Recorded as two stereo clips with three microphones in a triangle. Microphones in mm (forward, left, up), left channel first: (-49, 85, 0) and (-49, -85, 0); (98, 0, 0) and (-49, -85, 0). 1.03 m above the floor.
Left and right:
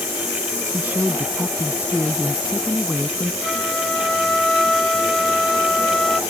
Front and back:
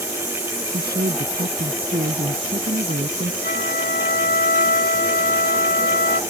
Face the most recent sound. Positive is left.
turn(degrees=5)